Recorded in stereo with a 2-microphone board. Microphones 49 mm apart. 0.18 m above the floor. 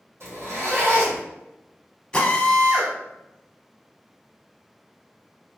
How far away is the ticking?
No ticking in this recording.